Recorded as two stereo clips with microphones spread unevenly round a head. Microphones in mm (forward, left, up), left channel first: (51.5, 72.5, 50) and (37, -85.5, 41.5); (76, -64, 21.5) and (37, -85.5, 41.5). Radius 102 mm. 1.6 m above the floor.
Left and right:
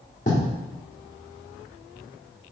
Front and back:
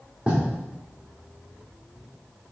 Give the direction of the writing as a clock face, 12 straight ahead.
7 o'clock.